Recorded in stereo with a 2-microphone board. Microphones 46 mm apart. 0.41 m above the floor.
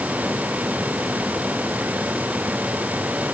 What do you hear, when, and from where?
Only background noise.